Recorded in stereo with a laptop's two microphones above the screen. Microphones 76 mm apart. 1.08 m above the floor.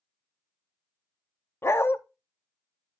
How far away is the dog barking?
About 0.5 m.